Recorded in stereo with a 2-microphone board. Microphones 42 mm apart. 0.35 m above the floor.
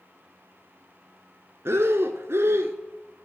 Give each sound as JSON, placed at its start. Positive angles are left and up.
{"t": 1.6, "sound": "breathing", "side_deg": -80, "distance_m": 0.7}